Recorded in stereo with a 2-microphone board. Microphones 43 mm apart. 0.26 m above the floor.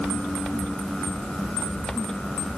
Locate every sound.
Only background noise.